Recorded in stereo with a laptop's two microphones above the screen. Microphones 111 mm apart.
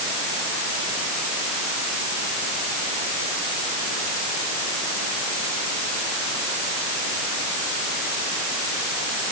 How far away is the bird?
No bird in this recording.